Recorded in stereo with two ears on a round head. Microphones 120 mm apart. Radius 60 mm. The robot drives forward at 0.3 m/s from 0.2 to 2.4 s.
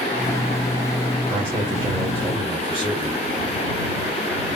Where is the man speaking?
40° right (ahead or behind), 3.5 m; by 3.2 s 45° right (ahead or behind), 3 m.